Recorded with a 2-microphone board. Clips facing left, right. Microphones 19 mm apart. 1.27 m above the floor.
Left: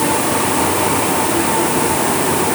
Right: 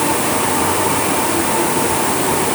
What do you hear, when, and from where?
Only background noise.